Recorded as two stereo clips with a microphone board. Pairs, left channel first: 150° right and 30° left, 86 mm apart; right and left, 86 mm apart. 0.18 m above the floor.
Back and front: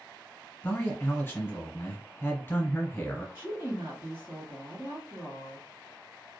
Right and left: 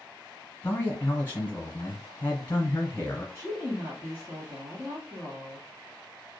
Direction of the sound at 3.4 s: 65° left.